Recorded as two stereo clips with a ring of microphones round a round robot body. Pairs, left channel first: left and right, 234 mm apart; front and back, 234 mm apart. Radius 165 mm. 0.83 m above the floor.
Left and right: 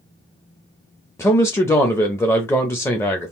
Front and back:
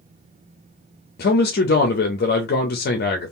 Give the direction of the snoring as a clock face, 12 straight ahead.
I don't hear snoring.